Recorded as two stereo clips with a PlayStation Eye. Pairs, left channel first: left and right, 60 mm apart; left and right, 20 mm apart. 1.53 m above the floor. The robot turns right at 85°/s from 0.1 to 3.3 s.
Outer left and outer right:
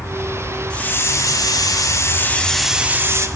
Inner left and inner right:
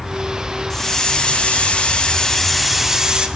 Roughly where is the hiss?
Ahead.